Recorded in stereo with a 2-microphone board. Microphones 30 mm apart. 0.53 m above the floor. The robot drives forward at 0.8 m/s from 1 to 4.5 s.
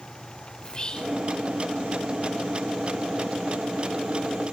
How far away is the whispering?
About 1.6 m.